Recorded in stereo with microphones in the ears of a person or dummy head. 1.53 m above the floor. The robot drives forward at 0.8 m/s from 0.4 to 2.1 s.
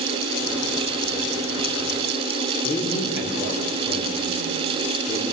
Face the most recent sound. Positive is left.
turn(degrees=40)  # may be behind; listen again after turning